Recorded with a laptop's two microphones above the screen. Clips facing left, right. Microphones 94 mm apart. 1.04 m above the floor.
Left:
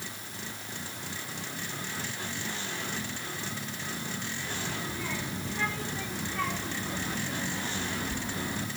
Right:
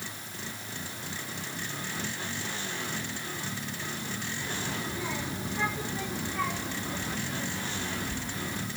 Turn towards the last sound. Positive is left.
turn(degrees=25)  # may be behind; listen again after turning